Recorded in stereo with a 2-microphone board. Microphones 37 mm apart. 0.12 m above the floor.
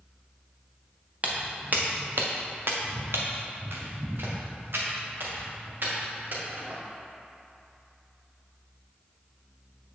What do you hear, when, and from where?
1.2 s footsteps: 40° right (ahead or behind), 1.6 m; by 6.7 s 55° right (ahead or behind), 3.5 m